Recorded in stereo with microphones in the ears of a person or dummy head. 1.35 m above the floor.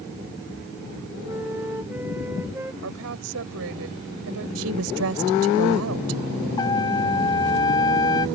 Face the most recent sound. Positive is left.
turn(degrees=20)  # may be behind; listen again after turning